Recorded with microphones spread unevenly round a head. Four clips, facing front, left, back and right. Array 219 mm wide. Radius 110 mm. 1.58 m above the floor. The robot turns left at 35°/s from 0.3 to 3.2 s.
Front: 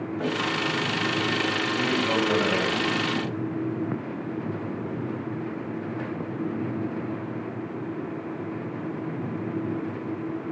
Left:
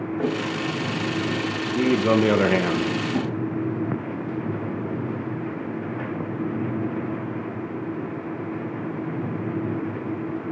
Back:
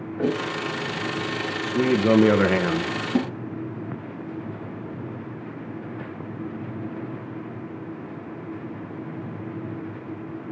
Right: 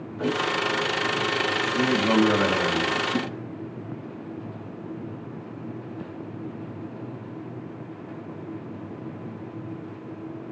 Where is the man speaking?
165° left, 1.8 m; by 2.9 s 120° left, 1.8 m.